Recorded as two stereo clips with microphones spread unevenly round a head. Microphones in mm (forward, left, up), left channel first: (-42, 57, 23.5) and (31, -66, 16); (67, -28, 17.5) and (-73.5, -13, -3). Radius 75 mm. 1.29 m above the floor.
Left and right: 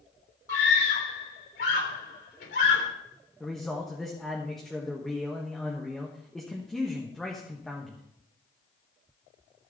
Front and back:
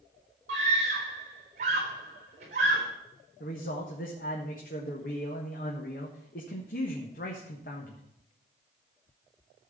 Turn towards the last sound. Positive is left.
turn(degrees=35)